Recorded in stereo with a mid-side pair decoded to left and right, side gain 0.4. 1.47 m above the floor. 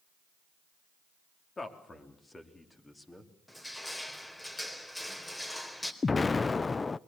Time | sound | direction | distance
1.6 | a man speaking | 35° left | 4 m
3.5 | crushing | 15° left | 3.5 m
6.0 | an explosion | 30° left | 0.6 m